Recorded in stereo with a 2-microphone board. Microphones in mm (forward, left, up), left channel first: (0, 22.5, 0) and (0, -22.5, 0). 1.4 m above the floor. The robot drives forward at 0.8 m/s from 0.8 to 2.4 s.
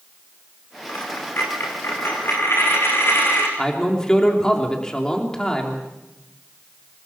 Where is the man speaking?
15° left (ahead or behind), 3 m.